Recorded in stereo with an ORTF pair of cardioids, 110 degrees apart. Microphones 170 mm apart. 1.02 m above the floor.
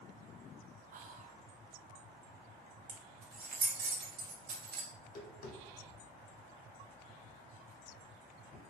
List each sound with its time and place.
0.9 s whispering: 50° right, 0.6 m
2.9 s keys jangling: 60° right, 0.9 m
4.9 s tapping: 50° left, 1.2 m